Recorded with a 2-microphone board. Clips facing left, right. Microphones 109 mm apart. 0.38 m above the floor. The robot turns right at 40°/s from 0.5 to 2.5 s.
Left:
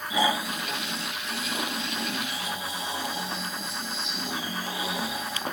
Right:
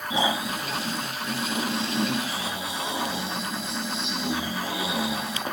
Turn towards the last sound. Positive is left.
turn(degrees=-75)